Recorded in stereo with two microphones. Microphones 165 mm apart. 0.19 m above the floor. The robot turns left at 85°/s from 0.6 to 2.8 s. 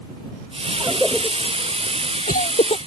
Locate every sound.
0.8 s a cough: 25° right (ahead or behind); by 2.8 s 35° left (ahead or behind)